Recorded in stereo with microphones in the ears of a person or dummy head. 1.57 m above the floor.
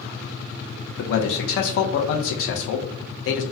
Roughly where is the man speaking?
Left.